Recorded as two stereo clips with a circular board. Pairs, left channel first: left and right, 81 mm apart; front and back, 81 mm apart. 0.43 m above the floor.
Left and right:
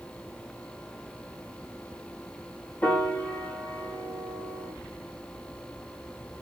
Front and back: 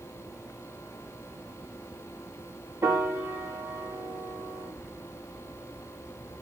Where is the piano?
145° left, 1.5 m.